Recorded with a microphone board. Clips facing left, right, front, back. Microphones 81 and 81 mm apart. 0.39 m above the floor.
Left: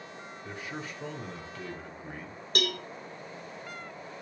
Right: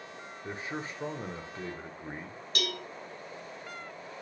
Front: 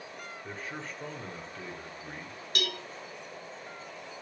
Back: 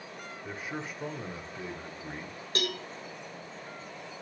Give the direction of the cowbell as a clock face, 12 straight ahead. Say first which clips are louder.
Left 4 dB, back 2 dB; 8 o'clock.